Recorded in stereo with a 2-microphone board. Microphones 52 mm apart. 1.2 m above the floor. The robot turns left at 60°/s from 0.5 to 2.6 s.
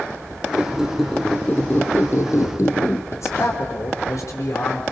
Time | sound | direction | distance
0.5 | a squeak | 155° right | 2.5 m
3.1 | a man speaking | 75° left (ahead or behind) | 3 m